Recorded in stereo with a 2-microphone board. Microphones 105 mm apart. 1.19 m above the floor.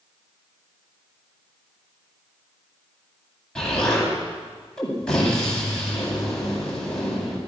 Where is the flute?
I don't hear a flute.